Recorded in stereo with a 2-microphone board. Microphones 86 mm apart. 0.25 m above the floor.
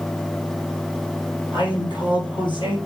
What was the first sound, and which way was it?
A man speaking, 75° left (ahead or behind).